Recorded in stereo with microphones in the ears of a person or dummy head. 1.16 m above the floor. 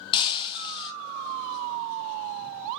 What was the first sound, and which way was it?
Breaking glass, 30° left (ahead or behind).